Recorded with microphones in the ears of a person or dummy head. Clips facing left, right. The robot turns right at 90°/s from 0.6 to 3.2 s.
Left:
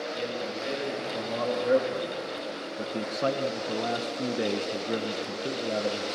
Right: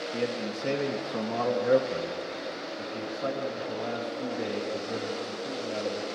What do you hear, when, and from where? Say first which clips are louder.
0.1 s a man speaking: right 2 dB; 145° right, 0.9 m; by 6.0 s 90° left, 0.9 m